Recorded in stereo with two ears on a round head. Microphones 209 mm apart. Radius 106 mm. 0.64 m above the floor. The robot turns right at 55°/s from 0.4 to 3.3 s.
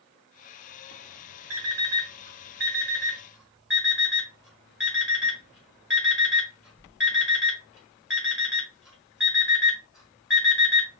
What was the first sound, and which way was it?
An alarm clock, 70° right (ahead or behind).